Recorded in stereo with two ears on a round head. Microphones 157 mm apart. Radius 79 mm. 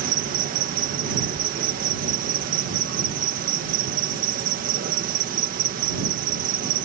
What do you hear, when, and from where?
0.0 s an insect: 50° right (ahead or behind)